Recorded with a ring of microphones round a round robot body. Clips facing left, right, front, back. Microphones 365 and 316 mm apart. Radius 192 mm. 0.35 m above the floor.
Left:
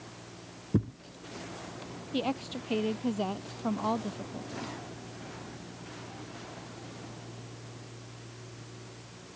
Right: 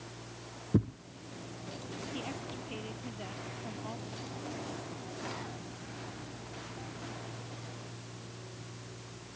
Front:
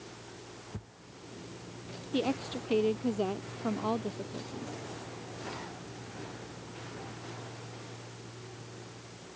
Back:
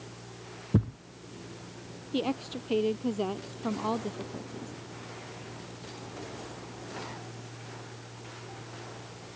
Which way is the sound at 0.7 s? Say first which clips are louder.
Even, back 24 dB; 175° left.